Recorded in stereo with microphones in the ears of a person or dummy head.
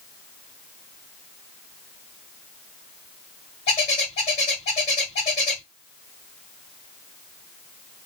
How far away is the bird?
About 1.5 m.